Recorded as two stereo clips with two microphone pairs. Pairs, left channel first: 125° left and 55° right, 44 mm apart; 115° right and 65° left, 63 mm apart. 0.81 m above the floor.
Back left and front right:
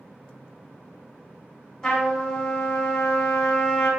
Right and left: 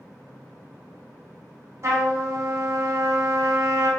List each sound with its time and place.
1.8 s a trumpet: 50° left, 0.9 m